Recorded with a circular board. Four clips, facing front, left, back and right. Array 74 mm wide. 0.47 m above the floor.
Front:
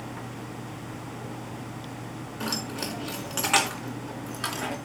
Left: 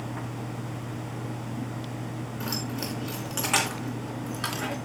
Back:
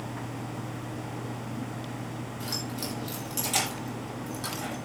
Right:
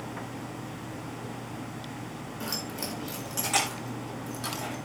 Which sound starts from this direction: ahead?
Keys jangling, at 2.4 s.